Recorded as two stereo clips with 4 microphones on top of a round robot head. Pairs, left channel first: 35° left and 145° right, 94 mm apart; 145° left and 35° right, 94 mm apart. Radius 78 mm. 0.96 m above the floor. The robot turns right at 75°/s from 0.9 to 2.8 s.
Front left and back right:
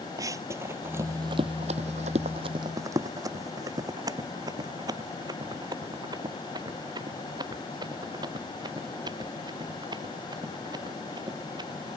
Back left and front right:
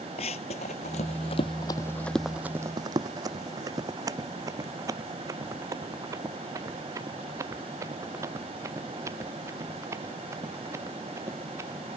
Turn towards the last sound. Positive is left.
turn(degrees=-100)